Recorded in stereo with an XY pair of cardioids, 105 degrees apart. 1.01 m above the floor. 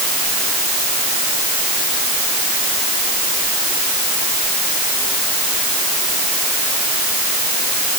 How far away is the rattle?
I don't hear a rattle.